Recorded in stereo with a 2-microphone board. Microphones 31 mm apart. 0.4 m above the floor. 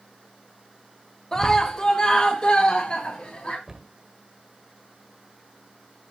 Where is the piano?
I don't hear a piano.